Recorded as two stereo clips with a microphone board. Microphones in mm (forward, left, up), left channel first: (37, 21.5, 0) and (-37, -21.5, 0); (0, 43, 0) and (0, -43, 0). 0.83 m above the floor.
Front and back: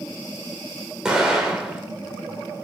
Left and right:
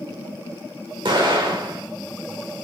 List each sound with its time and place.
1.1 s an explosion: 70° right, 1.8 m